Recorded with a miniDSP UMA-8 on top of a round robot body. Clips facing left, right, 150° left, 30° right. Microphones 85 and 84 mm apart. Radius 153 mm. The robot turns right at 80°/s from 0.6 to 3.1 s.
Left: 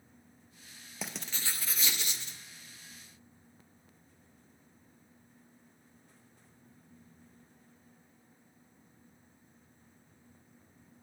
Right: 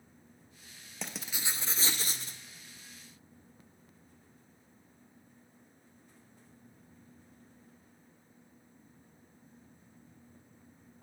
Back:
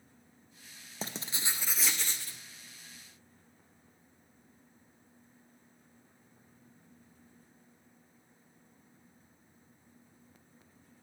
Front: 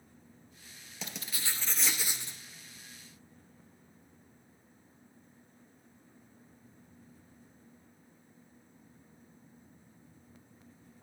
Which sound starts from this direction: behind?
Writing, at 1.0 s.